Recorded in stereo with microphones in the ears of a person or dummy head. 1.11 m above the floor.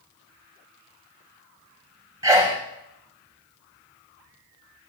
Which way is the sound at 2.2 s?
15° right (ahead or behind).